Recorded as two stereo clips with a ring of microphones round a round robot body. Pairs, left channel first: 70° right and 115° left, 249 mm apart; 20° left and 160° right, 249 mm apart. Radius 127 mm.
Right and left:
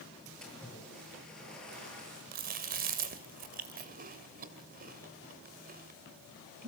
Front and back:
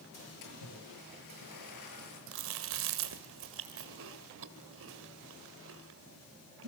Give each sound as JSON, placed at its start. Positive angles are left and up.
{"t": 0.4, "sound": "a splash", "azimuth_deg": 20, "distance_m": 7.5}
{"t": 2.3, "sound": "chewing", "azimuth_deg": 165, "distance_m": 2.0}